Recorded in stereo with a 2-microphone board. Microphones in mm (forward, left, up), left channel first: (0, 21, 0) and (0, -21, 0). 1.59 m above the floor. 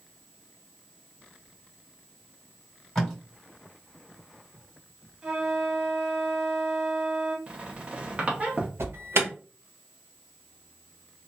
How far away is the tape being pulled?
About 1.9 m.